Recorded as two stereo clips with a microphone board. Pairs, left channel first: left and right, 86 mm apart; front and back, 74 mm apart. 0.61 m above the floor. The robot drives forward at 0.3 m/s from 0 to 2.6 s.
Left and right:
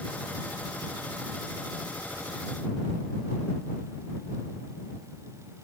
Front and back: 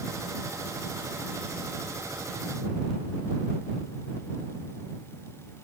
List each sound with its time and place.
Only background noise.